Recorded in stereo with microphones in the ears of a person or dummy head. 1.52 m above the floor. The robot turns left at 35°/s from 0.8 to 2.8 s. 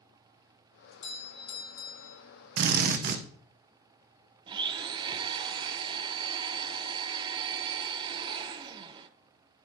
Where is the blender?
25° right (ahead or behind), 0.5 m.